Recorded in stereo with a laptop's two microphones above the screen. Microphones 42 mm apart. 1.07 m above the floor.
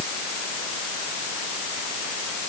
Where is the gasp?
I don't hear a gasp.